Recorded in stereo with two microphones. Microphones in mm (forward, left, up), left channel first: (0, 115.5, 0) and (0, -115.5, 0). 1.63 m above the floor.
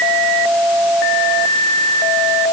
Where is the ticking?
No ticking in this recording.